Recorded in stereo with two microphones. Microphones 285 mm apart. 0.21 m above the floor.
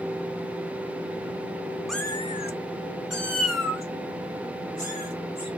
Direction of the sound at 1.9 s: Centre (ahead or behind).